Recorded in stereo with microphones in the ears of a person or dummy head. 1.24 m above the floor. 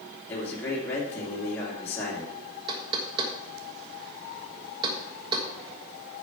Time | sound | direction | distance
0.3 | a man speaking | 15° left (ahead or behind) | 2.5 m
2.7 | knocking | 25° right (ahead or behind) | 1.5 m